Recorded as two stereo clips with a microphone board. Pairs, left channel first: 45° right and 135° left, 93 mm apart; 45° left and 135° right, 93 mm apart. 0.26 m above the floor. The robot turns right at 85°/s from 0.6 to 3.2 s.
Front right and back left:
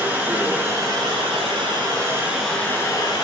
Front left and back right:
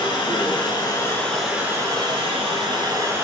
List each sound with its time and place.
0.0 s running water: 65° left, 0.9 m; by 3.2 s 75° right, 0.9 m